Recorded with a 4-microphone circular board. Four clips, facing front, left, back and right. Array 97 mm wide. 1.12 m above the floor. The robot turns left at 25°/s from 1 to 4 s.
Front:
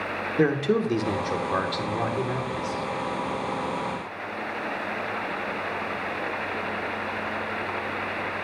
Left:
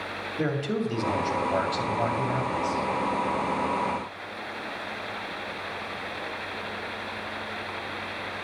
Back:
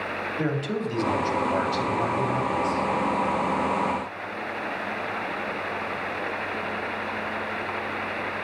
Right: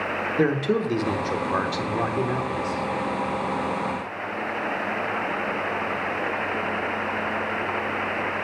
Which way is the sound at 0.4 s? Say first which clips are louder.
Right 5 dB, front 7 dB; 40° right.